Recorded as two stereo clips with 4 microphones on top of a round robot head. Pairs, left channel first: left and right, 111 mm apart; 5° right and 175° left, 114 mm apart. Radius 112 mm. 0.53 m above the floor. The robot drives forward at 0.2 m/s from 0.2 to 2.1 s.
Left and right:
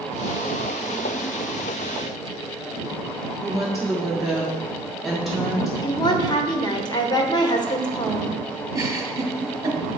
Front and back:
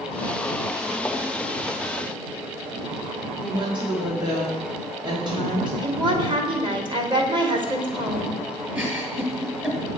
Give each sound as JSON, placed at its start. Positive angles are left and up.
{"t": 3.4, "sound": "a woman speaking", "azimuth_deg": -175, "distance_m": 1.6}
{"t": 5.8, "sound": "a woman speaking", "azimuth_deg": 135, "distance_m": 1.3}
{"t": 8.7, "sound": "a giggle", "azimuth_deg": -120, "distance_m": 1.4}